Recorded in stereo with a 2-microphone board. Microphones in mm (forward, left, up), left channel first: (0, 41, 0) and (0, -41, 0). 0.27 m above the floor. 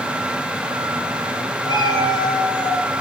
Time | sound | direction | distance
1.6 | a cat meowing | 60° left (ahead or behind) | 1.7 m